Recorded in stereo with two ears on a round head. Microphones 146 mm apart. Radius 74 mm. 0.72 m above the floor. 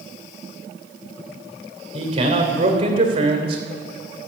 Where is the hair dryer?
I don't hear a hair dryer.